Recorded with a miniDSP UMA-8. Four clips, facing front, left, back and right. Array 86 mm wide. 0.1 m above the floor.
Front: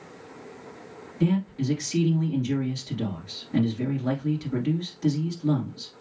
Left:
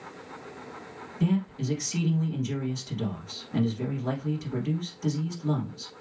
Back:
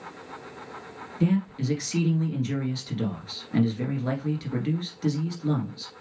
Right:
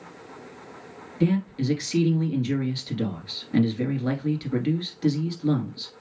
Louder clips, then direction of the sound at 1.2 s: Right 4 dB, even; 105° right.